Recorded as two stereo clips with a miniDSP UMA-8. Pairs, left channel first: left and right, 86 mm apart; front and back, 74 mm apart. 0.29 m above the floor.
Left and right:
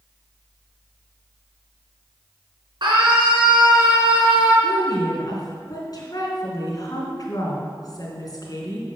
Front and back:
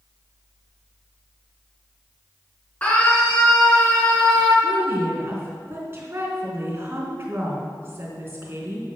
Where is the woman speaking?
125° left, 3.5 m.